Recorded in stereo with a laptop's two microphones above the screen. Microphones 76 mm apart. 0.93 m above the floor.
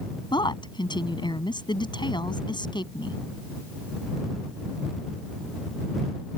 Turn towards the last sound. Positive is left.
turn(degrees=85)